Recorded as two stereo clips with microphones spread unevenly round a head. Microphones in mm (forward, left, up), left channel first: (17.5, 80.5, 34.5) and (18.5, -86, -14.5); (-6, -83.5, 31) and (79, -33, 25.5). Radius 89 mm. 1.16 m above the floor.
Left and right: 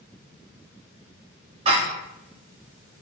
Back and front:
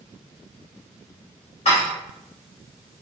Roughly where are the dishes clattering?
Behind right.